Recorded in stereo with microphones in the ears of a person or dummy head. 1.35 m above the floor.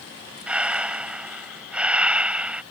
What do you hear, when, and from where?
0.5 s breathing: 10° right (ahead or behind)